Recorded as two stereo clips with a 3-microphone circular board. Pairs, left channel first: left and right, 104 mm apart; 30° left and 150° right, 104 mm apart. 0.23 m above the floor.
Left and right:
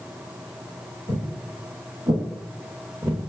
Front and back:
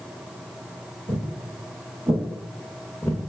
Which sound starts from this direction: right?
Footsteps, at 1.1 s.